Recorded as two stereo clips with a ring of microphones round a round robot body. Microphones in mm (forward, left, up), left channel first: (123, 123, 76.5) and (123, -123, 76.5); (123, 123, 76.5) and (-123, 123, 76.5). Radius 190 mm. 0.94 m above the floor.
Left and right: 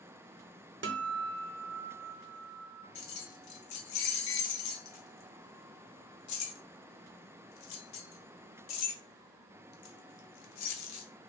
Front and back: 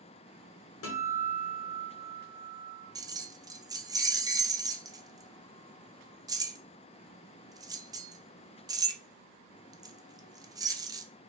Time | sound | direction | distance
0.8 | a guitar | 45° right | 0.7 m
3.0 | keys jangling | 100° left | 0.6 m